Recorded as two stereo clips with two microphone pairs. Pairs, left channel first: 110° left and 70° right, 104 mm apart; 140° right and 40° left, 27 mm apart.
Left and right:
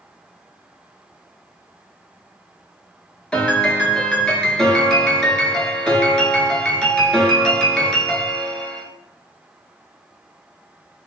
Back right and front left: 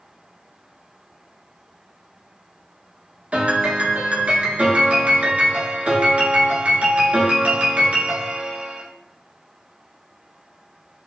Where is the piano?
30° left, 0.7 m.